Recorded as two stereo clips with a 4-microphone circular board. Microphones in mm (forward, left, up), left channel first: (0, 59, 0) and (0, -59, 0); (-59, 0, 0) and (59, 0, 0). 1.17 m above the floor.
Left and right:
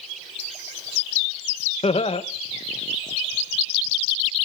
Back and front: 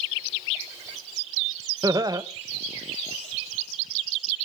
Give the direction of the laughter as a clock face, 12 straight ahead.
10 o'clock.